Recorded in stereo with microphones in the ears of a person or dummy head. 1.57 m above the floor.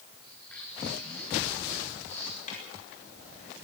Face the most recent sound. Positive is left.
turn(degrees=45)  # may be behind; listen again after turning